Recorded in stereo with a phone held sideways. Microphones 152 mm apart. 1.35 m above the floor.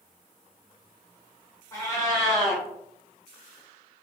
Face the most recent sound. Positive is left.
turn(degrees=20)  # may be behind; listen again after turning